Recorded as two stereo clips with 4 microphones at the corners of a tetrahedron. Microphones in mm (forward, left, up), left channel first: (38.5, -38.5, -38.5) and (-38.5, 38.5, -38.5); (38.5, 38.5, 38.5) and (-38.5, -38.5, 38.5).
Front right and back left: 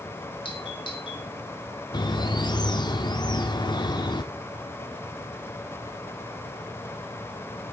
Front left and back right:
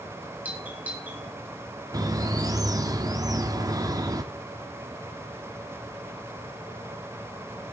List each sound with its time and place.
0.5 s a doorbell: 65° right, 2.5 m
1.9 s a bird: 85° right, 0.9 m